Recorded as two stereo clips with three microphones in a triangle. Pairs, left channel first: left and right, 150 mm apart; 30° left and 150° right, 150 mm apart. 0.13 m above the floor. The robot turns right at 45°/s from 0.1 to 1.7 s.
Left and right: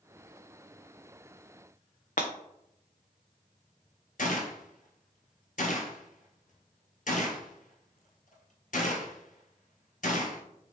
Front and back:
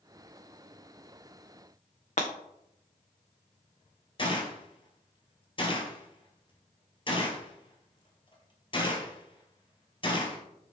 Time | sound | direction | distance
2.2 | breaking glass | 65° left | 0.7 m
4.2 | a gunshot | 80° left | 0.7 m